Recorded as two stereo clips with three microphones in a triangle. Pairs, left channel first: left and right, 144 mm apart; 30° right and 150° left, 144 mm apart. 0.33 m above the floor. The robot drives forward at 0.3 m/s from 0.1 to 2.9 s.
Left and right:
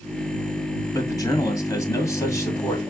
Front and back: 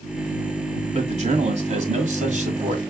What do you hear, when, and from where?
0.9 s a man speaking: 145° left, 1.7 m; by 2.8 s 155° left, 2 m